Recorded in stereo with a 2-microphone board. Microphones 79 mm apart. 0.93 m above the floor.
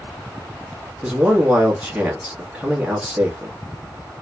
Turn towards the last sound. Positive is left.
turn(degrees=-10)  # may be behind; listen again after turning